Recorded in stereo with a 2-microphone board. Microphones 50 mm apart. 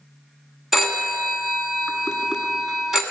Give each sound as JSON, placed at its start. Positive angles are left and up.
{"t": 0.7, "sound": "a phone ringing", "side_deg": -10, "distance_m": 1.3}